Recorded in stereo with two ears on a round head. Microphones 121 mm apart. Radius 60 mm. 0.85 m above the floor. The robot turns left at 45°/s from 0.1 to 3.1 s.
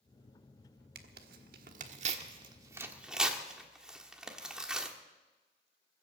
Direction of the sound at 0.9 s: 75° right (ahead or behind).